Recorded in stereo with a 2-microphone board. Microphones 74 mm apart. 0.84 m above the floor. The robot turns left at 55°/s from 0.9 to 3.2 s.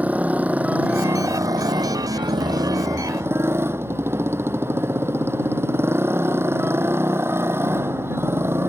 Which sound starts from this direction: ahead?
A motorcycle, at 0.0 s.